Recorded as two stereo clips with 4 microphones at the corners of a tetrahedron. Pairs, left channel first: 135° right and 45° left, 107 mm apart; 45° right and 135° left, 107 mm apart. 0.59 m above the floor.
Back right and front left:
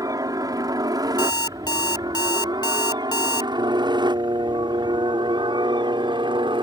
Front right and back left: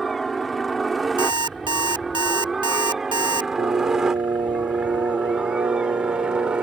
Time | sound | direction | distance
0.0 | a helicopter | 40° left | ?
1.2 | an alarm clock | 175° left | ?
3.6 | singing | 90° left | ?